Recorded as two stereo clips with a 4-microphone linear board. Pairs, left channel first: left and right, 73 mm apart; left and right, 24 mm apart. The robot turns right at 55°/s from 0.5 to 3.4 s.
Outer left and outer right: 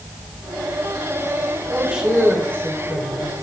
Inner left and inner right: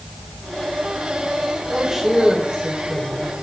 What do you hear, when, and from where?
1.7 s a man speaking: 25° right, 2.5 m; by 3.3 s 65° left, 2.5 m